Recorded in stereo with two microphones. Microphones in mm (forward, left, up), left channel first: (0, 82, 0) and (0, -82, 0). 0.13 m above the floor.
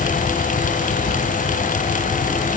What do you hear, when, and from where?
Only background noise.